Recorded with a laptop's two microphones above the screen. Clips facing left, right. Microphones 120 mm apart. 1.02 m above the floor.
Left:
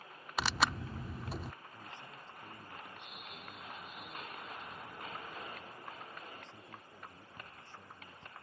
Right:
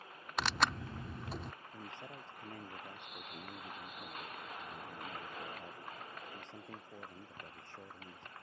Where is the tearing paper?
5° left (ahead or behind).